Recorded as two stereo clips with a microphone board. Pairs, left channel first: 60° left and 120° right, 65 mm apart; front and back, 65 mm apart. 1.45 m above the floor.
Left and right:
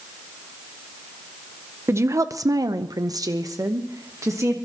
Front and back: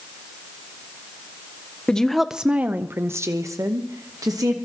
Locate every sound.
1.9 s a woman speaking: 75° right, 0.8 m; by 4.6 s 160° right, 1.6 m